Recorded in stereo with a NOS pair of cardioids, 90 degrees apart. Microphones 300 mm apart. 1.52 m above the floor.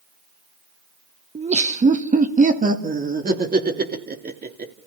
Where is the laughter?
20° right, 1.7 m; by 4.7 s 30° right, 3.5 m.